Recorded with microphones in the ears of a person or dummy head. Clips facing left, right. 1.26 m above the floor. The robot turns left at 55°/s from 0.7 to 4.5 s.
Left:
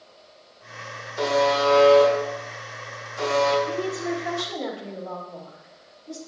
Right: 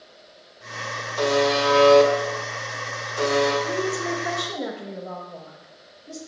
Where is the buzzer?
10° left, 1.9 m; by 3.5 s 120° right, 1.9 m.